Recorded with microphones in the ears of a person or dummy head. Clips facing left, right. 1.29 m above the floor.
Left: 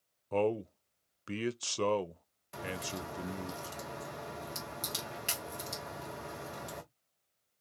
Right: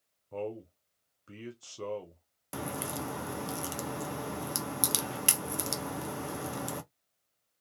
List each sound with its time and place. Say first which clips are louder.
0.3 s a man speaking: left 7 dB; 75° left (ahead or behind), 0.5 m
2.5 s a crack: right 3 dB; 55° right (ahead or behind), 0.5 m